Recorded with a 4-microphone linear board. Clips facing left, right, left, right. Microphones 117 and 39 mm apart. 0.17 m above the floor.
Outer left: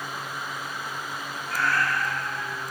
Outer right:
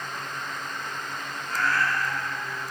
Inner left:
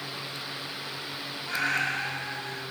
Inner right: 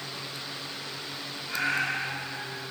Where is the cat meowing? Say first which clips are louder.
Even, even; 75° left (ahead or behind), 3 m.